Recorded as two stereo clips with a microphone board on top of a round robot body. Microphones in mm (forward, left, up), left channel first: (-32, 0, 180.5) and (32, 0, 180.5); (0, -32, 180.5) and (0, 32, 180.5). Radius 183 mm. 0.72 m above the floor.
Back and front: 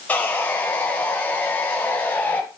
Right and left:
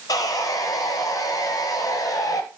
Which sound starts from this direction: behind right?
Sawing, at 0.1 s.